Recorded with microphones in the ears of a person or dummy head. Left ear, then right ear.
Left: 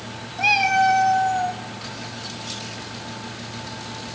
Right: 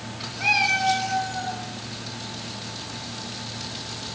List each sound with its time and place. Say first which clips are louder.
0.4 s a cat meowing: left 3 dB; 35° left (ahead or behind), 1.6 m; by 1.6 s 55° left (ahead or behind), 2.5 m